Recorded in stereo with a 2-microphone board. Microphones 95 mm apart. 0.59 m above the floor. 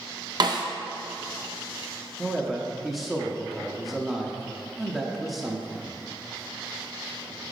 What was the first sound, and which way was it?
A snare drum, 50° right (ahead or behind).